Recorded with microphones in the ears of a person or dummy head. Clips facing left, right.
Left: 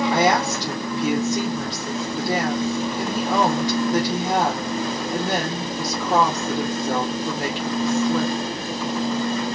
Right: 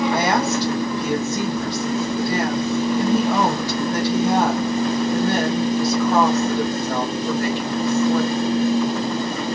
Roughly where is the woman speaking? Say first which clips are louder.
Even; centre.